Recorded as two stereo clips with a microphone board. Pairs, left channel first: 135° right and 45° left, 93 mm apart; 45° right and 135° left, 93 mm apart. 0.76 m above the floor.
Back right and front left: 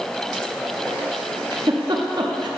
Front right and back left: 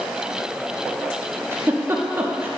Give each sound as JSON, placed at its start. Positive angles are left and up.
{"t": 1.5, "sound": "a giggle", "azimuth_deg": 75, "distance_m": 0.8}